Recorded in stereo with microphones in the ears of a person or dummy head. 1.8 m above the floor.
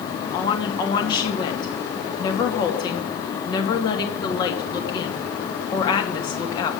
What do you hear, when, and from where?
0.3 s a woman speaking: 20° left (ahead or behind), 2.5 m